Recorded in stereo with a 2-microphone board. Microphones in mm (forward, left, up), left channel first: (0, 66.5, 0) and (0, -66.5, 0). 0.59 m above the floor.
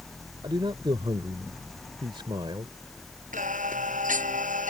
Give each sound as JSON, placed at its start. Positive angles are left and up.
{"t": 0.4, "sound": "a man speaking", "side_deg": -40}
{"t": 3.3, "sound": "singing", "side_deg": -75}